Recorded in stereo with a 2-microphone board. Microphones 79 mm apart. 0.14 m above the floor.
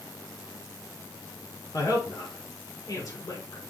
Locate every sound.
1.7 s a woman speaking: 55° left (ahead or behind), 1.7 m